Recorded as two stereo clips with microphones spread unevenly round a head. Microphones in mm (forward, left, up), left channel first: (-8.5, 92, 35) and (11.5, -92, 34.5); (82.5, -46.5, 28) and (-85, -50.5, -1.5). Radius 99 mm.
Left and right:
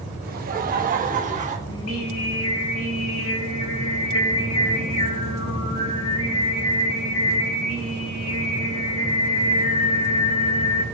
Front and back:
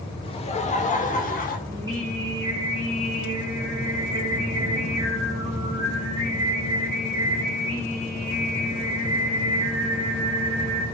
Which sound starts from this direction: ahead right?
Laughter, at 0.2 s.